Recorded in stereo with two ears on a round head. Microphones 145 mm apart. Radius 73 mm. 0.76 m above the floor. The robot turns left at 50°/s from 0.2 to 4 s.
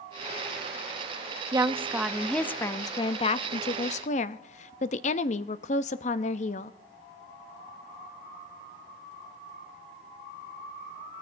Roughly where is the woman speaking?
Behind right.